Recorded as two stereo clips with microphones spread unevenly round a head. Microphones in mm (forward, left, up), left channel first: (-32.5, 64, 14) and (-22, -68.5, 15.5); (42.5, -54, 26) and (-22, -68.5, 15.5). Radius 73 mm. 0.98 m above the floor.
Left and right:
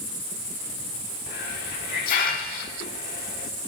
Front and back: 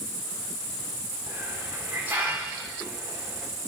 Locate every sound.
1.3 s a hiss: 115° left, 1.6 m